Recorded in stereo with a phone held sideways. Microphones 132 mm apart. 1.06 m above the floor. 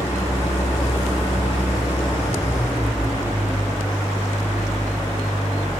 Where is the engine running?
25° left (ahead or behind), 8.5 m.